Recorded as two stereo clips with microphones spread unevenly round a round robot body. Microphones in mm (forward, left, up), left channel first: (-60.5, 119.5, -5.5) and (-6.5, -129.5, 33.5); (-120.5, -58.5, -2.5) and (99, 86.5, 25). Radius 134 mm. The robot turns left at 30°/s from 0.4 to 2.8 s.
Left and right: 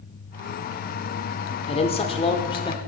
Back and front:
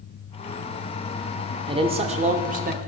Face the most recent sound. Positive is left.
turn(degrees=65)